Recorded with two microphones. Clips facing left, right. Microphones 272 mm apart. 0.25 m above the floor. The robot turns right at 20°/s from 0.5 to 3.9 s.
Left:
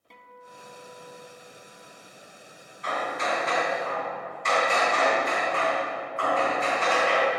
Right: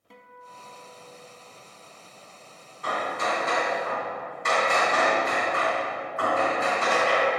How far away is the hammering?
About 2 m.